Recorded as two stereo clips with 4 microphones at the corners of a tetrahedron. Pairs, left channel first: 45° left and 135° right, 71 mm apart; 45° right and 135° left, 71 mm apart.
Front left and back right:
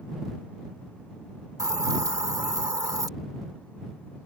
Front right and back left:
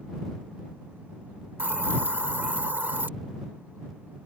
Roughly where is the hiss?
Behind.